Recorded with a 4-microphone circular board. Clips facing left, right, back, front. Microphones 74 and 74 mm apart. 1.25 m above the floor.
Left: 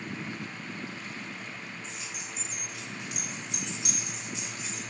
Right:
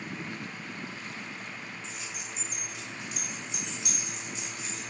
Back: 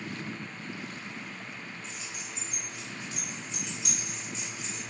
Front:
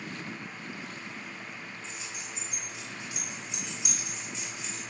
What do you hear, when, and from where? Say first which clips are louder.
1.8 s keys jangling: even, even; 60° left, 3 m; by 4.8 s 95° left, 2.5 m